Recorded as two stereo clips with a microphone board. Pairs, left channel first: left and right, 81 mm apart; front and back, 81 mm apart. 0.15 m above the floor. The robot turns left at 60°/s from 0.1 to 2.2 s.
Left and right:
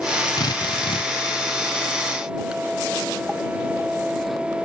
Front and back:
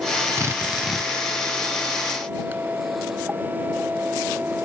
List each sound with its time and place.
0.4 s a drill: 130° left; by 1.1 s 85° left